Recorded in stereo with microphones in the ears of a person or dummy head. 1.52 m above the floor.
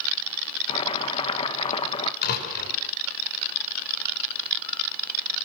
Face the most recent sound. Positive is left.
turn(degrees=60)  # may be behind; listen again after turning